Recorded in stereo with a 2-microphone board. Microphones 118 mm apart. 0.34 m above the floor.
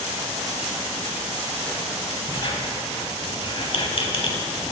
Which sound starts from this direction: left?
A squeak, at 2.3 s.